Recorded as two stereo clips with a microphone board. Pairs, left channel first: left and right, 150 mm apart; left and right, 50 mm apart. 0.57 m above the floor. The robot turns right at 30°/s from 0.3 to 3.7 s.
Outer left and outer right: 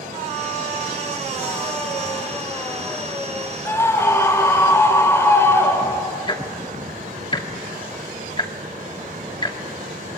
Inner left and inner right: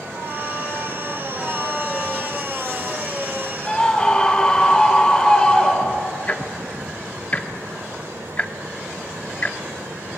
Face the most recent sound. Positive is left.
turn(degrees=35)  # may be behind; listen again after turning